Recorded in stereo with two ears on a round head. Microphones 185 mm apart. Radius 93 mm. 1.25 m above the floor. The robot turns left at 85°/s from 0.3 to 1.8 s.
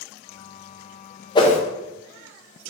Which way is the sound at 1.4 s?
20° left (ahead or behind).